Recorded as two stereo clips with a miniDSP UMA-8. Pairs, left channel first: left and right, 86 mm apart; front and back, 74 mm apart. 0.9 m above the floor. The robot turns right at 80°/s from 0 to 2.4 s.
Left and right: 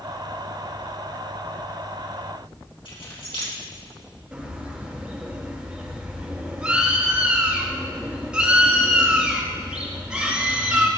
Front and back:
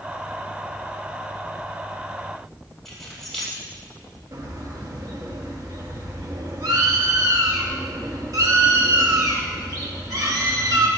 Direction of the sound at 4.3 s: 165° right.